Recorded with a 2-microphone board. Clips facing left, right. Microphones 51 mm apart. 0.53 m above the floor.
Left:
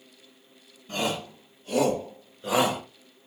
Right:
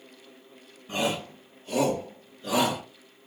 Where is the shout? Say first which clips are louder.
Right 1 dB; 15° right (ahead or behind), 2.5 m; by 2.8 s 30° left (ahead or behind), 2.5 m.